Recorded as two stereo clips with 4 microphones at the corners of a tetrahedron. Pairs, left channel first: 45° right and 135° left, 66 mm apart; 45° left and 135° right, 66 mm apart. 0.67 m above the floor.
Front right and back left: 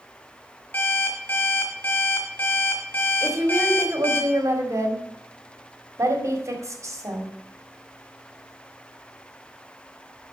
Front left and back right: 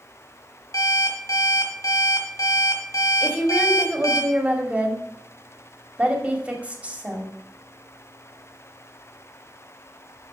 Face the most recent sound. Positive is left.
turn(degrees=160)